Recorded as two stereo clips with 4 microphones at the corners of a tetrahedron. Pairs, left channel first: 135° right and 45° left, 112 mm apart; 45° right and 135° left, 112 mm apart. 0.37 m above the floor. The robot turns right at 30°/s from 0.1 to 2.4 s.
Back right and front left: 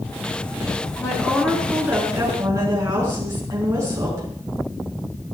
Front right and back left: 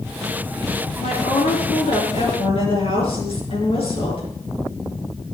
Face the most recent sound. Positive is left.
turn(degrees=-20)